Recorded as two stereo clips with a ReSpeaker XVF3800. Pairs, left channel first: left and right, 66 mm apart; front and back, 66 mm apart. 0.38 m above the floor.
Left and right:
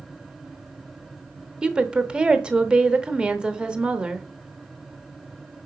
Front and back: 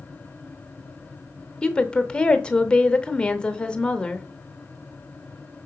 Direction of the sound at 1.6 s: 45° right.